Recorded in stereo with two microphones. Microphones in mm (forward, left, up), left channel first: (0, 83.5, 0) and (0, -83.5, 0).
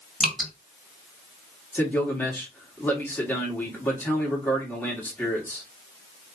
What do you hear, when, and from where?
0.2 s dripping: 5° left (ahead or behind), 1.6 m
1.7 s a man speaking: 10° left (ahead or behind), 1.3 m